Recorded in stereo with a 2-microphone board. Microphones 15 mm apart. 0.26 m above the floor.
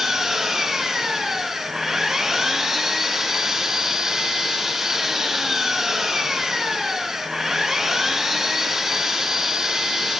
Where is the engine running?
15° right (ahead or behind), 1.9 m.